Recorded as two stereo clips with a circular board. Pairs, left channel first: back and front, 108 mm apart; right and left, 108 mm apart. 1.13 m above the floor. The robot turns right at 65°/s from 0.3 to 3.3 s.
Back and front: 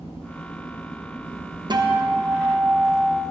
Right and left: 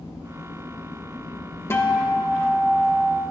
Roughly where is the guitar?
Ahead right.